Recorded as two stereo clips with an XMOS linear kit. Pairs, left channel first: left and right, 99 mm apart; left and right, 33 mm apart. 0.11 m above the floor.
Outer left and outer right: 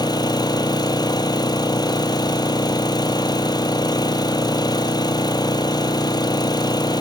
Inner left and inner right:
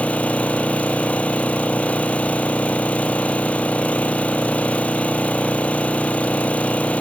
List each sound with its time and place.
0.0 s an engine running: 45° left (ahead or behind), 1.8 m